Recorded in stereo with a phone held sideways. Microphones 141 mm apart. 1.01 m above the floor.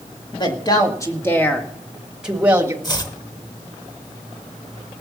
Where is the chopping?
30° left (ahead or behind), 1.3 m.